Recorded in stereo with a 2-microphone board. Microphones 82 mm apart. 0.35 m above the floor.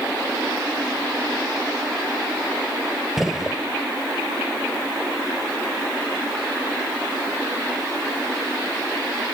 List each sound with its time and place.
3.2 s a gunshot: 5° right (ahead or behind), 1.2 m